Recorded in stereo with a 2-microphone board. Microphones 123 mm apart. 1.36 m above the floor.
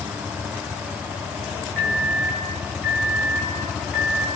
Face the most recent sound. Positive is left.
turn(degrees=15)  # may be behind; listen again after turning